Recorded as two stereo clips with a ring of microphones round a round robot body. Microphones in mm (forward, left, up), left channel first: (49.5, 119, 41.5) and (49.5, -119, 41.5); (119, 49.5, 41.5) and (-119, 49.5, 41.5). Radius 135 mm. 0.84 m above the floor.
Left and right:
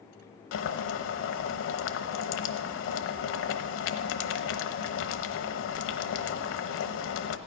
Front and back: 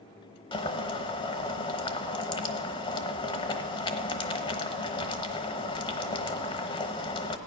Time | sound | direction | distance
0.5 | boiling | 65° left | 1.0 m